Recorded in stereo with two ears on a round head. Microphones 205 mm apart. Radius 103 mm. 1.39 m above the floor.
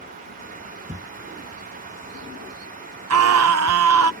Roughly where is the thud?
Centre.